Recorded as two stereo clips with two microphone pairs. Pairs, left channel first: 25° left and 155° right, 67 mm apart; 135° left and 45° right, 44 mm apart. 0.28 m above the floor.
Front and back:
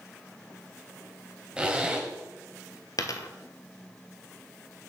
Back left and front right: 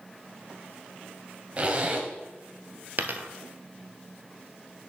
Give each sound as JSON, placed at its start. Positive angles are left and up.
{"t": 1.6, "sound": "a zipper", "azimuth_deg": -90, "distance_m": 1.2}
{"t": 3.0, "sound": "a dropped coin", "azimuth_deg": -5, "distance_m": 0.7}